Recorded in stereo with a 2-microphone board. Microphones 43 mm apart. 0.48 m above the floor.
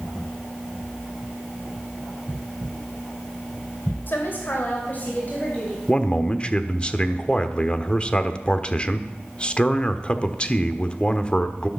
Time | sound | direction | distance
4.1 | a woman speaking | 55° left (ahead or behind) | 2.5 m
5.9 | a man speaking | 25° left (ahead or behind) | 1.1 m